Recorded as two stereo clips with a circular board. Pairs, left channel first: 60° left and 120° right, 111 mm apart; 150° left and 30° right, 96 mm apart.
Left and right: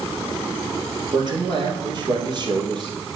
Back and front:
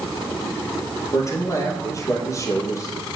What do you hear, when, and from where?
1.1 s a man speaking: 160° right, 3 m